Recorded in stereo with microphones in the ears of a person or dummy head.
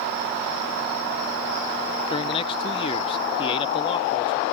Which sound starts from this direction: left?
A man speaking, at 2.1 s.